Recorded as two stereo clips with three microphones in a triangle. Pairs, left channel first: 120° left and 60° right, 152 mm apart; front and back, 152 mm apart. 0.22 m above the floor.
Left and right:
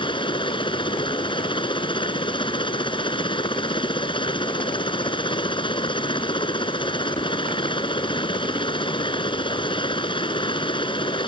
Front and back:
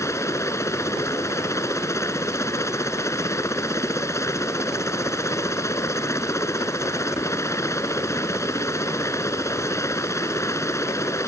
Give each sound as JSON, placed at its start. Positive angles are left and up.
{"t": 0.0, "sound": "a helicopter", "azimuth_deg": 70}